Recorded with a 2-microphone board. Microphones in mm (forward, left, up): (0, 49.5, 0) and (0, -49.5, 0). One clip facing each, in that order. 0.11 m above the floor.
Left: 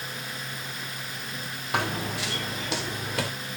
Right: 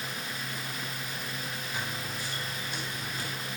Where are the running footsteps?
70° left (ahead or behind), 1.2 m; by 3.3 s 80° left, 2.5 m.